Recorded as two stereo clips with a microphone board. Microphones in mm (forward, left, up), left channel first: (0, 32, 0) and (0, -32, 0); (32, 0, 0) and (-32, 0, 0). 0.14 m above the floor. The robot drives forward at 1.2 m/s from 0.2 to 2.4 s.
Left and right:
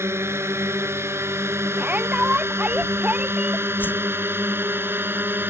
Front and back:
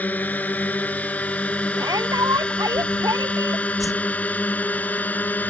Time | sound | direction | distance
0.0 | a drone | 55° right | ?
1.8 | a shout | 155° right | ?
3.8 | a whoosh | 30° left | ?